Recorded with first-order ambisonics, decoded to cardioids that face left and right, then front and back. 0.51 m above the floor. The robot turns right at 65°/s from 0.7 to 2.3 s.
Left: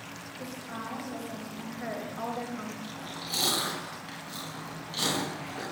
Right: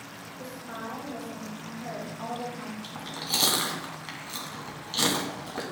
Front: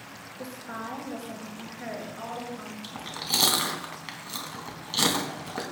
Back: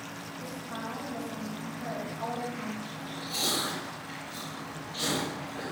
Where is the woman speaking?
15° right, 5.5 m; by 2.7 s 90° left, 5.5 m.